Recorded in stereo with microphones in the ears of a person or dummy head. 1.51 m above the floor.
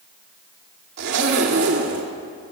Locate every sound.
1.0 s a zipper: 65° right (ahead or behind), 2 m